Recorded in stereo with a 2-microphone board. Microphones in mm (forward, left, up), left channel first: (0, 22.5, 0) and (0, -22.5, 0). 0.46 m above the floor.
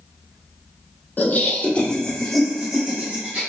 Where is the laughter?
40° left (ahead or behind), 0.9 m; by 3.4 s 35° right (ahead or behind), 1.0 m.